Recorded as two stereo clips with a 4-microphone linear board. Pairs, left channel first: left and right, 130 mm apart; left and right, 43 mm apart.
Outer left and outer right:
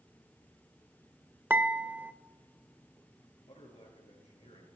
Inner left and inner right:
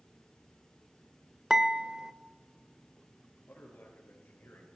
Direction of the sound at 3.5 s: 55° left (ahead or behind).